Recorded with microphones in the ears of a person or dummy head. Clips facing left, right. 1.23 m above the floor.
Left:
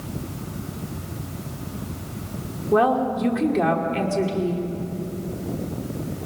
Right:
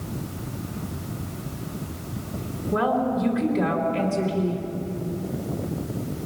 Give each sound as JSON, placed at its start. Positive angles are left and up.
{"t": 2.7, "sound": "a woman speaking", "side_deg": 50, "distance_m": 3.0}